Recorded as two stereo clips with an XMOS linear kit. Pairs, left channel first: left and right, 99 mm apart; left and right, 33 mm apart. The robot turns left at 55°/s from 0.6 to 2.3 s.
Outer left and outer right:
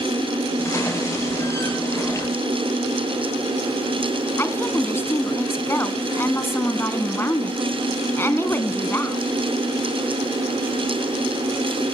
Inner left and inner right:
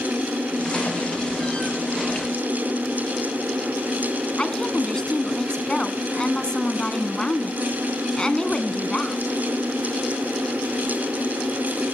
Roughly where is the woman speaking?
Left.